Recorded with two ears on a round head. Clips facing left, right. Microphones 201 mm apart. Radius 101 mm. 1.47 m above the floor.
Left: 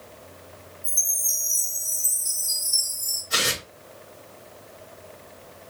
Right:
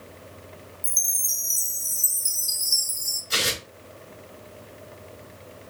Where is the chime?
50° right (ahead or behind), 1.8 m.